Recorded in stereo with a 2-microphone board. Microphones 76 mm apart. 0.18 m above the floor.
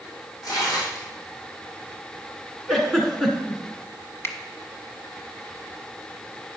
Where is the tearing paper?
50° left (ahead or behind), 4 m.